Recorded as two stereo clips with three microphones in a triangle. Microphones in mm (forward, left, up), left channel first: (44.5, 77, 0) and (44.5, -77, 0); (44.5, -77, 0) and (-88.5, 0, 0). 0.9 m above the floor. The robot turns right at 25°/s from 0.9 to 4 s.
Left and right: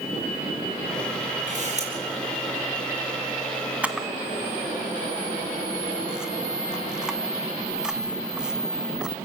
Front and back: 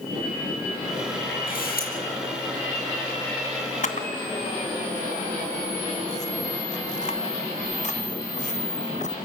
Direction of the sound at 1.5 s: 55° right.